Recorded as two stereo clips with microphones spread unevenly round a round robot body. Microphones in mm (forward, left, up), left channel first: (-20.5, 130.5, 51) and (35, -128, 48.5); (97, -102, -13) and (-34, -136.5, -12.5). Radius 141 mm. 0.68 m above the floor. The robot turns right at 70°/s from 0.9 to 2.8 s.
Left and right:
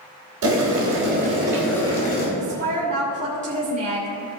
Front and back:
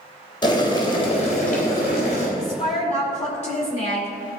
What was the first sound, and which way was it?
Boiling, 40° right.